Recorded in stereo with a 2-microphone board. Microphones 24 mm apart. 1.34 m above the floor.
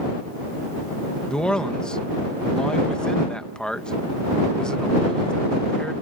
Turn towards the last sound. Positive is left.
turn(degrees=40)  # may be behind; listen again after turning